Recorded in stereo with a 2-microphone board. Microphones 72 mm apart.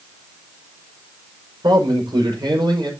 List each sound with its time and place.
1.6 s a man speaking: 85° right, 6 m